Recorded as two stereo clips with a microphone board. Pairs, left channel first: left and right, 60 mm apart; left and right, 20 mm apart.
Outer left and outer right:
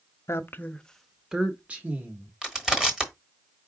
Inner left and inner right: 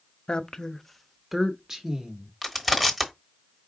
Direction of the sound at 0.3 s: 50° left (ahead or behind).